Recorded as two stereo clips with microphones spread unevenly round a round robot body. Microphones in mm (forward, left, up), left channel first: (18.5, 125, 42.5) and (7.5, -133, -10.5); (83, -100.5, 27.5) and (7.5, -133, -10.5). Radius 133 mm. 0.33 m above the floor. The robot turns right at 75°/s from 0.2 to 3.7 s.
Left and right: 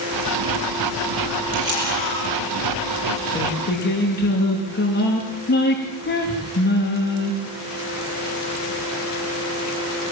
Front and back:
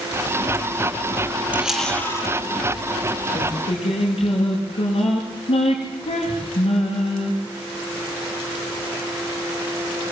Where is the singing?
10° left, 8.5 m; by 7.3 s 35° left, 8.5 m.